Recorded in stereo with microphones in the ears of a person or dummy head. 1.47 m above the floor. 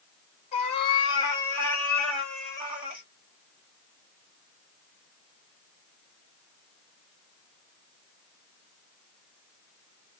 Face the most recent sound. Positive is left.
turn(degrees=-10)  # may be behind; listen again after turning